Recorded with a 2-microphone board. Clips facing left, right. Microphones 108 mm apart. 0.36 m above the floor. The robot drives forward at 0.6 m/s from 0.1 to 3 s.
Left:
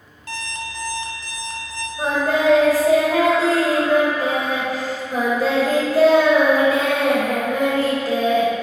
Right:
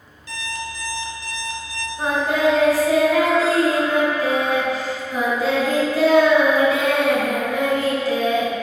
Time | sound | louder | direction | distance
0.3 | an alarm clock | even | 70° left (ahead or behind) | 1.0 m
2.0 | singing | even | 40° left (ahead or behind) | 1.7 m